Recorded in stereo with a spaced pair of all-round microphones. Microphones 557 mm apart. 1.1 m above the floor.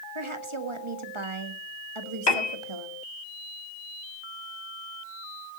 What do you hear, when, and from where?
0.1 s a woman speaking: 60° right (ahead or behind), 1.5 m
2.3 s a piano: 45° left (ahead or behind), 1.5 m